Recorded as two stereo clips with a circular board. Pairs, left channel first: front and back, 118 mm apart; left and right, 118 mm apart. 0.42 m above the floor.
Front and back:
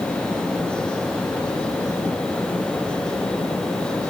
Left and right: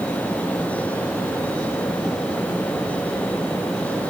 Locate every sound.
Only background noise.